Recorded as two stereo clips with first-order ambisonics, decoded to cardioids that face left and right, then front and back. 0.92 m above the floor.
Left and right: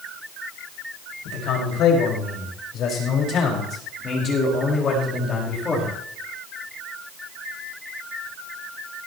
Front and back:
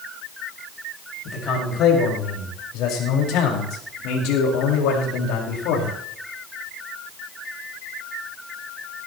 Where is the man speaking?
50° left, 5.5 m; by 5.9 s 15° left, 5 m.